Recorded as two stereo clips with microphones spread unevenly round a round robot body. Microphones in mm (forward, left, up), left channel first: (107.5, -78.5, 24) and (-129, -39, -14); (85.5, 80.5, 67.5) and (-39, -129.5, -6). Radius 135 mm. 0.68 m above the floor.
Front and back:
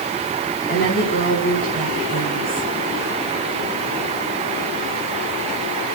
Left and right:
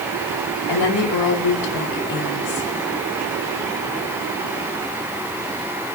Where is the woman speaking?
55° left, 5 m.